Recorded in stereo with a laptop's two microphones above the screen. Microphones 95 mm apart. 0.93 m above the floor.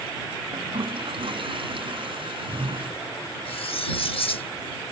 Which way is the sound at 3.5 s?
75° left (ahead or behind).